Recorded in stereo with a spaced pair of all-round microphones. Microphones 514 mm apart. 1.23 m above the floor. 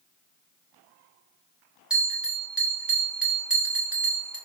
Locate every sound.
1.9 s a bell: centre (ahead or behind), 1.5 m